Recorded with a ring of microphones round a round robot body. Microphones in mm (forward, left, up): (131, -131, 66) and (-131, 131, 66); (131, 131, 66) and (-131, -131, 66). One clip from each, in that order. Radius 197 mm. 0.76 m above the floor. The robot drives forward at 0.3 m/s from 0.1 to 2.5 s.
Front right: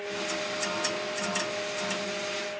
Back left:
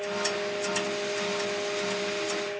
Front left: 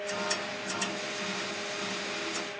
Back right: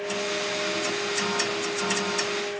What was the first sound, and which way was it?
Only background noise.